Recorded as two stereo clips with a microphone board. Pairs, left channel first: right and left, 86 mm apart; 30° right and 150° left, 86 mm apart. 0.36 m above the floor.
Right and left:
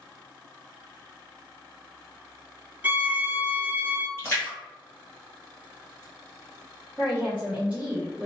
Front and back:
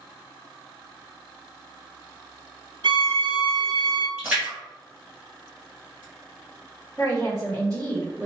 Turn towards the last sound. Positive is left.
turn(degrees=155)